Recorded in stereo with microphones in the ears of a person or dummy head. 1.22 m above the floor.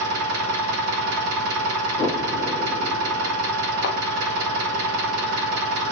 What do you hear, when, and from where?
0.0 s an engine running: 85° right, 0.9 m
2.0 s an explosion: 20° left (ahead or behind), 3 m
3.8 s a thud: 30° left (ahead or behind), 0.7 m